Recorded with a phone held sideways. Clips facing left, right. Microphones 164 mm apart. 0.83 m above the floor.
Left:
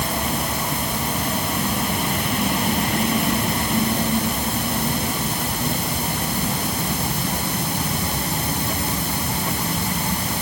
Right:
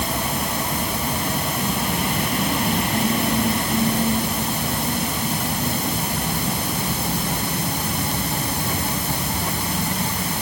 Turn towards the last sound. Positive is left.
No sound to turn to.